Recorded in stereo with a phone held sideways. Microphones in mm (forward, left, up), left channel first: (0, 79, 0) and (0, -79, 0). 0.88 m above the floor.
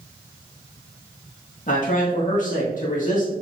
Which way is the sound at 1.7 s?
55° left (ahead or behind).